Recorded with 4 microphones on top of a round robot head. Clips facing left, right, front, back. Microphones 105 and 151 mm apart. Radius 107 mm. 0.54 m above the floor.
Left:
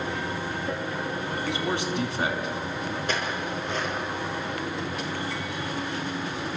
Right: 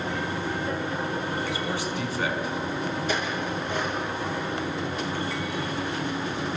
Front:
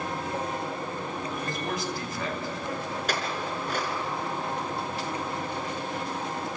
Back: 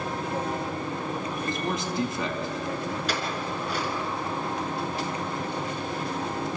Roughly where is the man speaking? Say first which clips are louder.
Left 1 dB, back 4 dB; left.